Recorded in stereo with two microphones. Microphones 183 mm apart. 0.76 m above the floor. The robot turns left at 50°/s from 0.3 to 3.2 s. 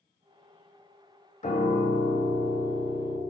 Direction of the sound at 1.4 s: 125° left.